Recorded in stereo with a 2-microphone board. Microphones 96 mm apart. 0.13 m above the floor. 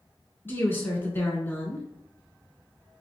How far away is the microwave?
I don't hear a microwave.